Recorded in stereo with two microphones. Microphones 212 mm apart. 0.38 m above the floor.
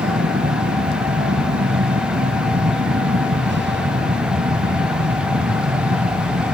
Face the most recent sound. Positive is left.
turn(degrees=-55)  # may be behind; listen again after turning